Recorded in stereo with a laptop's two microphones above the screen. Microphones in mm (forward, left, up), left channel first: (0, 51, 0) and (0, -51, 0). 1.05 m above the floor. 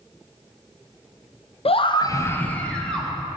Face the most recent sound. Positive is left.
turn(degrees=5)  # may be behind; listen again after turning